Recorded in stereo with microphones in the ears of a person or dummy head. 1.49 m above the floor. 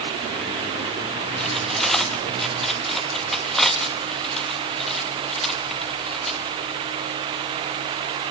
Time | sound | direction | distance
1.4 | cutlery clinking | centre (ahead or behind) | 1.4 m